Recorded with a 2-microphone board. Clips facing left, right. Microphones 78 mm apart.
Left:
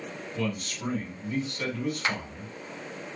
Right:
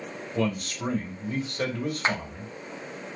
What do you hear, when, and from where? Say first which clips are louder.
0.3 s a man speaking: right 5 dB; 40° right (ahead or behind), 1.8 m
2.0 s a clap: right 5 dB; 30° right (ahead or behind), 0.6 m